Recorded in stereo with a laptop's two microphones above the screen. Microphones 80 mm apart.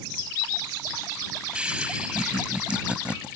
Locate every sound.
1.6 s laughter: 15° right (ahead or behind)